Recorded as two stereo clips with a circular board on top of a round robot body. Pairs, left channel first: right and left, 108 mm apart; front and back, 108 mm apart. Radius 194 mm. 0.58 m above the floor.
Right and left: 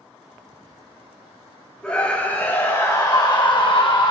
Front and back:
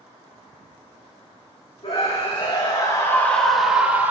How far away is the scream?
About 2 m.